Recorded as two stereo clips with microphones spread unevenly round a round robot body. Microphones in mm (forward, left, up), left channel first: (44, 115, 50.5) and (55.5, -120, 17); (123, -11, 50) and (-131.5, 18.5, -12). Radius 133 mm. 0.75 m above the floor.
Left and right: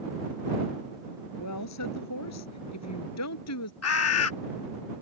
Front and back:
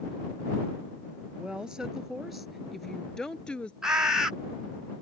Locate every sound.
1.4 s a woman speaking: 85° left; by 3.7 s 80° left
3.8 s a bird: 95° left